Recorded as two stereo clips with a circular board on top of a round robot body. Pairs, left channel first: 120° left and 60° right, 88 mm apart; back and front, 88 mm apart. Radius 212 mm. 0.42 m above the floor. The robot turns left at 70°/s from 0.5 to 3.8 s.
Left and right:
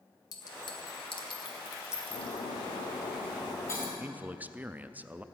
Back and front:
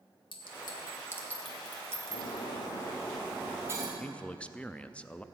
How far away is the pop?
I don't hear a pop.